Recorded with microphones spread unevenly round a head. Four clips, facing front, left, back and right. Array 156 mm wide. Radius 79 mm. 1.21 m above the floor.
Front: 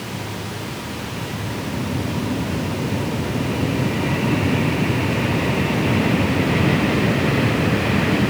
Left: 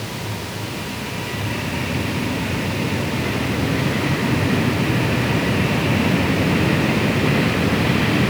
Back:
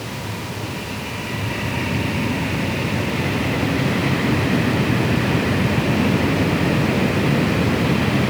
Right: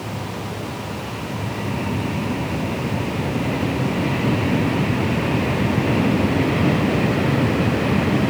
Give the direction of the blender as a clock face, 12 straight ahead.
I don't hear a blender.